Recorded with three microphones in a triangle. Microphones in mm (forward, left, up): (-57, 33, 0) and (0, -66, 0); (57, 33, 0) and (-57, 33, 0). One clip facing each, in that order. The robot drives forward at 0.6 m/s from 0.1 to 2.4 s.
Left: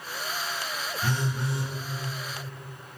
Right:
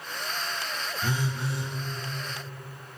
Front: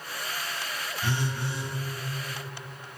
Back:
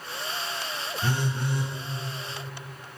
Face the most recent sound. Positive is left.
turn(degrees=-160)